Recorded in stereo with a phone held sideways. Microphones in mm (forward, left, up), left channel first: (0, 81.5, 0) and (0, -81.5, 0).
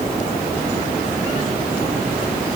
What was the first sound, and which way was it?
Only background noise.